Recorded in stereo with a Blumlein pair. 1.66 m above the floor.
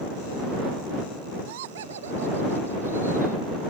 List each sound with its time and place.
1.5 s laughter: 50° right; by 3.4 s 80° right